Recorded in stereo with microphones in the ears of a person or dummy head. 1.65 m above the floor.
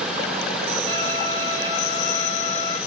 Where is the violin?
30° right (ahead or behind), 2.5 m.